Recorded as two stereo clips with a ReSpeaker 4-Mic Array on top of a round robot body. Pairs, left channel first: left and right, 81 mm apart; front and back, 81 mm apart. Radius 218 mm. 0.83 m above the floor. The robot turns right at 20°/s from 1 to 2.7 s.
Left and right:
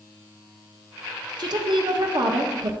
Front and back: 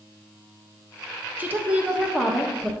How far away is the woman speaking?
About 1.1 m.